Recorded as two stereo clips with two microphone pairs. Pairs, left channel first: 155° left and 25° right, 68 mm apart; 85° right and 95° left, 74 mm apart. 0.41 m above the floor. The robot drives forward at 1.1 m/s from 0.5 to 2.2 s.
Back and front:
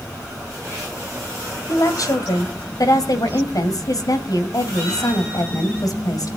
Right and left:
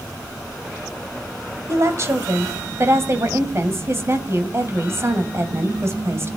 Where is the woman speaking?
130° left, 1.9 m; by 6.4 s 145° left, 2 m.